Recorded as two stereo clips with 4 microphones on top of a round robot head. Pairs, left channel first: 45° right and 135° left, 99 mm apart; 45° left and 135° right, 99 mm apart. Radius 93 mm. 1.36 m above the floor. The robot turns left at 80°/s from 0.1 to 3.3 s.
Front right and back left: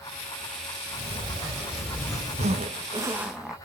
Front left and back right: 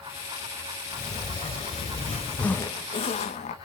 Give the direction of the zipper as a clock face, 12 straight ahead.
8 o'clock.